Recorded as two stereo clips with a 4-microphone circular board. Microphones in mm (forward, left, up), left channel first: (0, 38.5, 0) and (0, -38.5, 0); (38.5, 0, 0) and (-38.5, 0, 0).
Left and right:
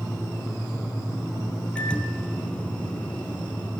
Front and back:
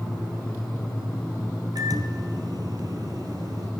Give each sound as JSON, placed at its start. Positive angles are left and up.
{"t": 1.8, "sound": "a microwave", "azimuth_deg": 165, "distance_m": 2.5}